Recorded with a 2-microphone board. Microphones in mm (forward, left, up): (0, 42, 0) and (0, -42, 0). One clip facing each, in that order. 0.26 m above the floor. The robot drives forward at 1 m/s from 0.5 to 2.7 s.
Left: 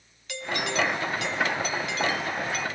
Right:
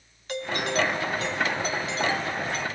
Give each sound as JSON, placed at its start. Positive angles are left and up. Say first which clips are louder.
{"t": 0.3, "sound": "a doorbell", "louder": "right 2 dB", "side_deg": -40, "distance_m": 2.5}